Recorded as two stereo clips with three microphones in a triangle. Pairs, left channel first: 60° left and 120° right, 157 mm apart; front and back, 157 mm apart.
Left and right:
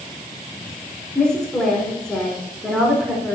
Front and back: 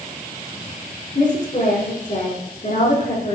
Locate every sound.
1.1 s a woman speaking: 25° right, 3.5 m